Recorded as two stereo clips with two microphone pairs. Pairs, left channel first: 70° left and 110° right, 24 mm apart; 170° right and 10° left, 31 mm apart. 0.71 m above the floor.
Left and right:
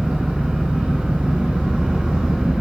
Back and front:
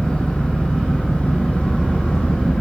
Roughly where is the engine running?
Behind right.